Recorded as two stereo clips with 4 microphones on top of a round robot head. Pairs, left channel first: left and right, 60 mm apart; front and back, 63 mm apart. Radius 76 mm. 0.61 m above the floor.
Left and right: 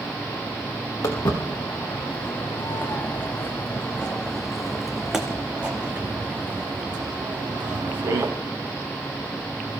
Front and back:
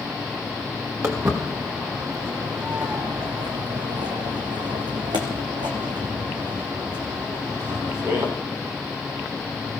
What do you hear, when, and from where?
1.0 s footsteps: 130° left, 3.5 m; by 8.3 s 125° right, 3 m